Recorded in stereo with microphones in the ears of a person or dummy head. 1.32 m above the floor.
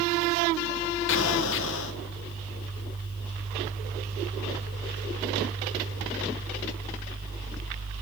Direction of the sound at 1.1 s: 70° left (ahead or behind).